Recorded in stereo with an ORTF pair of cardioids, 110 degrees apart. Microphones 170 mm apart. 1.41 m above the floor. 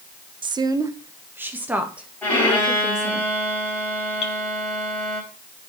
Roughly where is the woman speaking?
Ahead right.